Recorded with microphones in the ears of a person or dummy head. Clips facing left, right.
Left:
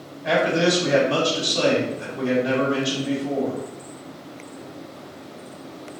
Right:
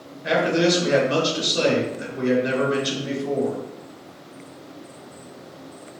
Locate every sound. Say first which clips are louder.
0.2 s a man speaking: even; 30° right (ahead or behind), 1.5 m